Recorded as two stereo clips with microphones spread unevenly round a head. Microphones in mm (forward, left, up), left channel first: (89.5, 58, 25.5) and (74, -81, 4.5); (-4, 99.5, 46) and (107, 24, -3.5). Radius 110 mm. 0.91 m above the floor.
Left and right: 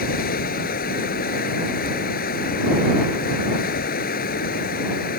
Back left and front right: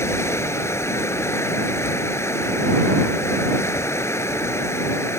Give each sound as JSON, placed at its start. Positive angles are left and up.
{"t": 0.0, "sound": "running water", "azimuth_deg": 75}